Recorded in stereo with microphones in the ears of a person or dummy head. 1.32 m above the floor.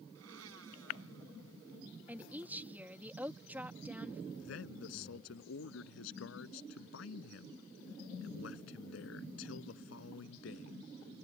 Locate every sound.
0.1 s a blender: 80° right
2.1 s a woman speaking: 10° right (ahead or behind)
4.4 s a man speaking: 75° left (ahead or behind)